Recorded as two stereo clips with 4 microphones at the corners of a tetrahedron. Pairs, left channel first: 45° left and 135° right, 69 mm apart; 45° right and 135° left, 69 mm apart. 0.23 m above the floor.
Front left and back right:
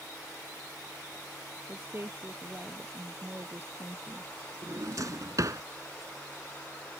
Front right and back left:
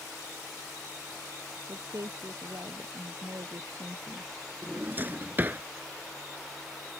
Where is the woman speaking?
165° left; by 4.3 s 170° left.